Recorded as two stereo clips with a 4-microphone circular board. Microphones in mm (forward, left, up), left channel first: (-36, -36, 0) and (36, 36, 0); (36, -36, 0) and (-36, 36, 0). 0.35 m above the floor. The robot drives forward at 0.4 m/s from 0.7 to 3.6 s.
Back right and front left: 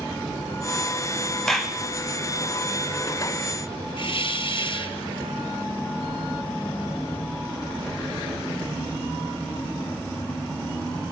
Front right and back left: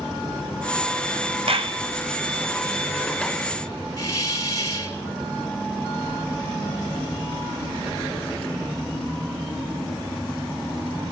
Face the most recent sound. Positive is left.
turn(degrees=-105)